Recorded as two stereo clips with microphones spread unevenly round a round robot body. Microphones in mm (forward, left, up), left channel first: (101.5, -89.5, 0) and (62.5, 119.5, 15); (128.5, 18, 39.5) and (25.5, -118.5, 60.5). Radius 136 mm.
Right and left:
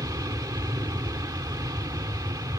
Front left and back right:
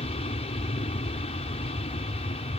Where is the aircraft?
35° left.